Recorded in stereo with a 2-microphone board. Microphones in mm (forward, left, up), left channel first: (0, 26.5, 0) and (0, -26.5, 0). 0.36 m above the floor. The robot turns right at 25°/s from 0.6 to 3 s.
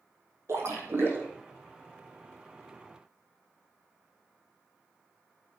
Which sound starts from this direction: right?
A splash, at 0.5 s.